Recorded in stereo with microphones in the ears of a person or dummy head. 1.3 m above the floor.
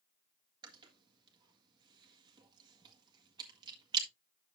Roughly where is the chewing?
Right.